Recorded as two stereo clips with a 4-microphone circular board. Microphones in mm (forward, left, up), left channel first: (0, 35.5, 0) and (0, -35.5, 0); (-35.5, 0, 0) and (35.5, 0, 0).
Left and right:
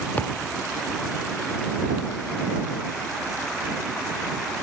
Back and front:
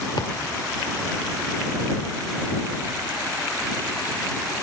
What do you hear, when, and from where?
0.2 s a thud: 155° left